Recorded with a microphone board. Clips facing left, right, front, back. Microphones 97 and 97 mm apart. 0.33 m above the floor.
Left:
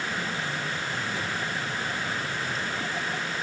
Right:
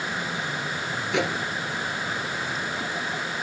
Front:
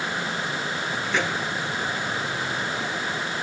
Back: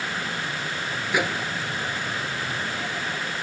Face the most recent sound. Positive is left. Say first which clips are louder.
# right 6 dB, back 2 dB
turn(degrees=-100)